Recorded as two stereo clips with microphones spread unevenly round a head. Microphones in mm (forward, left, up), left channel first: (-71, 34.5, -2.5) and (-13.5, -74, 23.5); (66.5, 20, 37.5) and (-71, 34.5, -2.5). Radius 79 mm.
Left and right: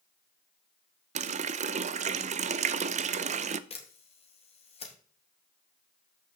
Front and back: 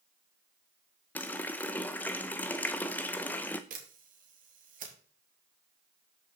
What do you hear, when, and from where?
1.1 s a running tap: 80° right, 0.5 m
3.7 s a camera shutter: 155° left, 2.5 m